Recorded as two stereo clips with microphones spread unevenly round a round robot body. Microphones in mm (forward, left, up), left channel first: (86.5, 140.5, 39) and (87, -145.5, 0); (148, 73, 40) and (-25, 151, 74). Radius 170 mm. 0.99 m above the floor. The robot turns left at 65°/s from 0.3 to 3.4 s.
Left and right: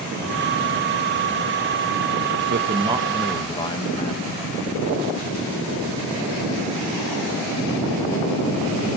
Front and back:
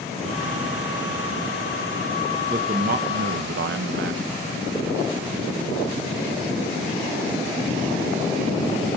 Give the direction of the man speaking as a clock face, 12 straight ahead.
4 o'clock.